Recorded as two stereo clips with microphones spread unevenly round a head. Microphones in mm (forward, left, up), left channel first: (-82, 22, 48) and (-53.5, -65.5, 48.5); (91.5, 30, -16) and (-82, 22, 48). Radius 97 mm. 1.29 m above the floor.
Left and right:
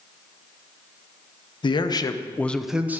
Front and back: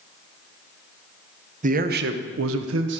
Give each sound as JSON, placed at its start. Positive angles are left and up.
{"t": 1.6, "sound": "a man speaking", "azimuth_deg": 135, "distance_m": 0.9}